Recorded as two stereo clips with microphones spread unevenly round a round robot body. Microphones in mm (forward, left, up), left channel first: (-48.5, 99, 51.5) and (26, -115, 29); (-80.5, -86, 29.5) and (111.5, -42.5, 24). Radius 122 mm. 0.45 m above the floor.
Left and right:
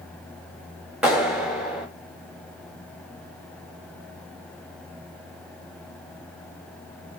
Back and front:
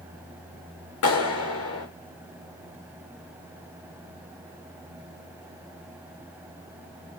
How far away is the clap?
About 5 m.